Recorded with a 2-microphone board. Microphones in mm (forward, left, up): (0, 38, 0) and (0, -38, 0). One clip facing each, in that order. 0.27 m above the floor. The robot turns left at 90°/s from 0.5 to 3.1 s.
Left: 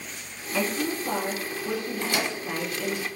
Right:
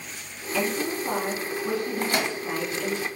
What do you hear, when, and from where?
0.5 s a woman speaking: 15° left, 1.8 m; by 3.0 s 155° left, 1.8 m
2.0 s a microwave: 40° right (ahead or behind), 0.8 m; by 2.4 s 35° right (ahead or behind), 0.8 m